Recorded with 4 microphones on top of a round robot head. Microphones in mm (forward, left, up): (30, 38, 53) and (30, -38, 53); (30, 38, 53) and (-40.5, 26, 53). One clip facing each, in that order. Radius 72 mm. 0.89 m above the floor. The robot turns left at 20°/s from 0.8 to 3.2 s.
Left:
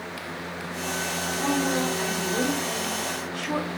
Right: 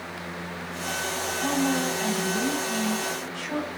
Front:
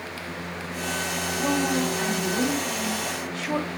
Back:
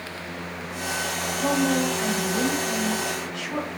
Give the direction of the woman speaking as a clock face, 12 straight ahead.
9 o'clock.